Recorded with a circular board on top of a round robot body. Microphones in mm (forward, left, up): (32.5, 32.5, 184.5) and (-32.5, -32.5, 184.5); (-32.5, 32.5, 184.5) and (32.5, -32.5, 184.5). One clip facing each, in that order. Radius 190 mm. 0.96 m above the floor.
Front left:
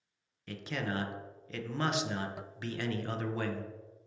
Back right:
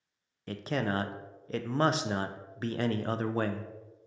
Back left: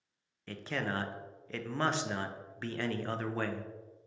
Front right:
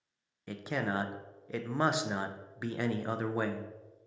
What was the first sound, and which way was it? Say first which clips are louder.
A man speaking: back right 5 dB, front right 2 dB; 115° right.